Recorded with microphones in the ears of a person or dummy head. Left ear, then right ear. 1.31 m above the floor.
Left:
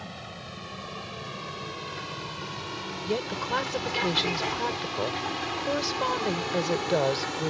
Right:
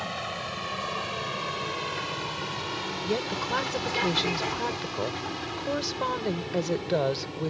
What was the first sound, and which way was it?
A vehicle, 30° right (ahead or behind).